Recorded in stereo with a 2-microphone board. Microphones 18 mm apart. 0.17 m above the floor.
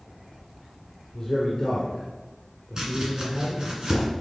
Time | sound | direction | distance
1.1 | a man speaking | 30° left (ahead or behind) | 3 m
2.8 | chopping | 40° right (ahead or behind) | 2.5 m